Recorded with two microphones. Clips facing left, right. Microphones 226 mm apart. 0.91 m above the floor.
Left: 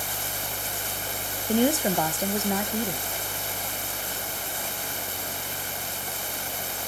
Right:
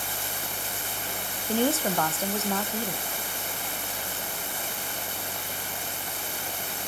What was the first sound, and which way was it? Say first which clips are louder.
A woman speaking: left 3 dB; 15° left (ahead or behind).